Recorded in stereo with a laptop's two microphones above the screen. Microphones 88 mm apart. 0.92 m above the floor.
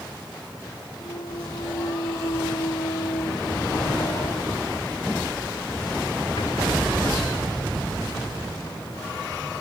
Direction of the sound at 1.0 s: 85° left.